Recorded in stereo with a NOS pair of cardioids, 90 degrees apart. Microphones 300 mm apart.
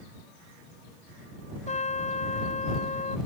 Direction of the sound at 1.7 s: 25° left.